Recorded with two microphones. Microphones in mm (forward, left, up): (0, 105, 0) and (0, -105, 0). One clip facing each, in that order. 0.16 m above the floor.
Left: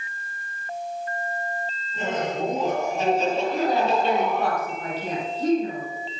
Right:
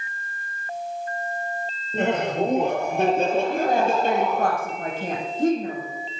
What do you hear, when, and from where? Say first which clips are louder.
1.9 s laughter: right 5 dB; 65° right (ahead or behind), 4 m; by 4.5 s 40° right (ahead or behind), 5 m
3.5 s a woman speaking: right 1 dB; 50° right (ahead or behind), 6.5 m